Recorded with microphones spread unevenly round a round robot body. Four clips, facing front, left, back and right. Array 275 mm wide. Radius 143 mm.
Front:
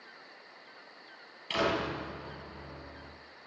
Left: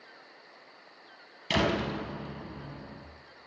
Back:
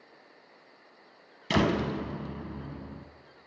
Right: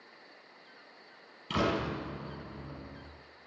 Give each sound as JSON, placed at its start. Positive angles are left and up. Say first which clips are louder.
{"t": 1.5, "sound": "a door slam", "louder": "left 2 dB, back 4 dB", "azimuth_deg": 160, "distance_m": 4.0}